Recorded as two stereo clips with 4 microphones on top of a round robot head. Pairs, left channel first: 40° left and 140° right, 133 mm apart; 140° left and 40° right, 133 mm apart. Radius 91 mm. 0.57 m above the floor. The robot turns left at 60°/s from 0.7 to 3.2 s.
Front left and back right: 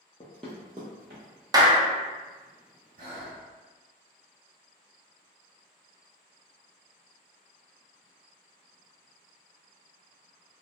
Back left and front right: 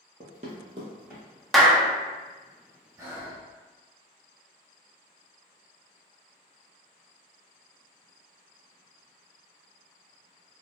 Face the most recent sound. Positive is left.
turn(degrees=-120)